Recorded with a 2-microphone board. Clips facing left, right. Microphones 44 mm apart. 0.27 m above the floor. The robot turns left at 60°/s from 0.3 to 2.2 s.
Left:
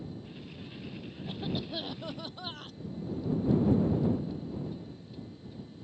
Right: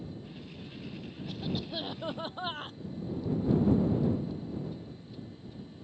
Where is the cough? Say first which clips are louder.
Left 1 dB; 25° left; by 2.8 s 30° right.